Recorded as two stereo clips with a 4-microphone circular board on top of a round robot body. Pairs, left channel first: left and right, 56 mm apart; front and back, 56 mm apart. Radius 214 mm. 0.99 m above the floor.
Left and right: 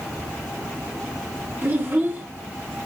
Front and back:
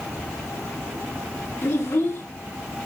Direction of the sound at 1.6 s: 35° right.